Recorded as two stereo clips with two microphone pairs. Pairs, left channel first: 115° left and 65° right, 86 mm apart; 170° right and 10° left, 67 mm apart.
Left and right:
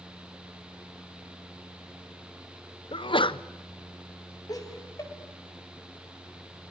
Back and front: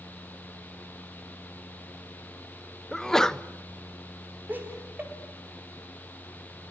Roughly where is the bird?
No bird in this recording.